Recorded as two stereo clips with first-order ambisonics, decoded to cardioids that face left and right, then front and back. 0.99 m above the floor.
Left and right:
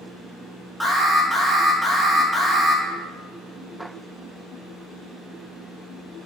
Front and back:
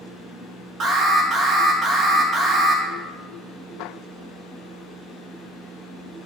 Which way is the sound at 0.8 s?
175° right.